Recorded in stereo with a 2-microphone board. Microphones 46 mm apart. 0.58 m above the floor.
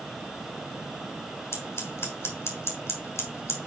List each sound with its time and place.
1.5 s scissors: 65° left (ahead or behind), 2.5 m